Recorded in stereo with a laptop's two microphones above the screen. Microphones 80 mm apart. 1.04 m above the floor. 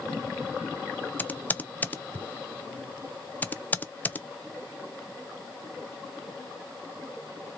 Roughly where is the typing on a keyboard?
Left.